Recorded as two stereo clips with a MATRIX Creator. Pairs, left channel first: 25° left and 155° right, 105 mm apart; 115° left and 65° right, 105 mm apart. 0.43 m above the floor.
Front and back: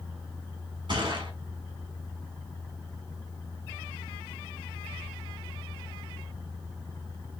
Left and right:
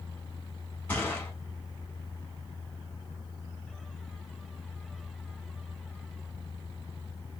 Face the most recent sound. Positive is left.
turn(degrees=180)